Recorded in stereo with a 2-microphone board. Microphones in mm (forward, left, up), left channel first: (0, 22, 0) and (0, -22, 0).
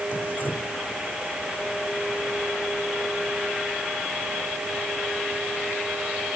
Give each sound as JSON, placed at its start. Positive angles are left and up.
{"t": 0.1, "sound": "dripping", "side_deg": 45}